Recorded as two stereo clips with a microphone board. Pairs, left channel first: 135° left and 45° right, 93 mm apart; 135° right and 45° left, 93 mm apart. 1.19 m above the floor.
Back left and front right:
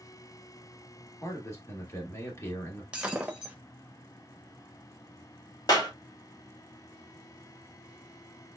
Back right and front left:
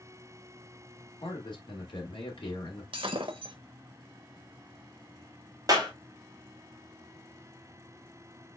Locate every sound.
1.2 s a man speaking: 165° right, 1.7 m
2.9 s breaking glass: 35° left, 0.9 m
5.7 s a clap: 95° left, 1.8 m